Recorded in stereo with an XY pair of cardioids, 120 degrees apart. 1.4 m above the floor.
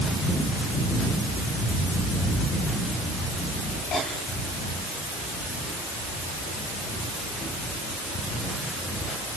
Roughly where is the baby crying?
No baby crying in this recording.